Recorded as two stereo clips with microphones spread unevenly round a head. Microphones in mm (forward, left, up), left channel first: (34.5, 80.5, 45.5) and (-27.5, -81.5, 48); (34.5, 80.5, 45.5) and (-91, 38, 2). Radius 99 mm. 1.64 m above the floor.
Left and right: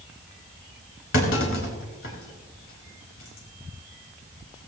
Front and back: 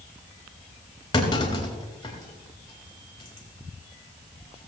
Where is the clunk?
70° left, 4 m.